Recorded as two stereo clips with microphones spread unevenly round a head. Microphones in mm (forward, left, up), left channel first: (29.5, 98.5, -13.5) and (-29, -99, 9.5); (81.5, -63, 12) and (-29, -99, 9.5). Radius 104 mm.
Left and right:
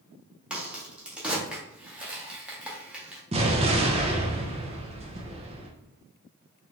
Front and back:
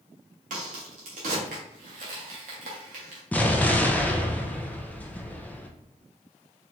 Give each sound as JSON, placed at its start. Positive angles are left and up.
{"t": 0.5, "sound": "a crack", "azimuth_deg": 165, "distance_m": 1.1}
{"t": 3.3, "sound": "an explosion", "azimuth_deg": -55, "distance_m": 0.8}